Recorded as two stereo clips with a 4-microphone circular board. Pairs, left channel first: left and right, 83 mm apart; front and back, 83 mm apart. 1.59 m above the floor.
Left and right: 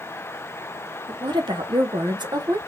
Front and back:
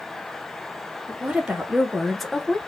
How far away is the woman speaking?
About 1.4 m.